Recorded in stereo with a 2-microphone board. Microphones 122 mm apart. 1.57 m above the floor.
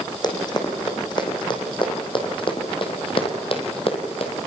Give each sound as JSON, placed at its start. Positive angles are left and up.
{"t": 0.2, "sound": "running footsteps", "side_deg": 35, "distance_m": 4.5}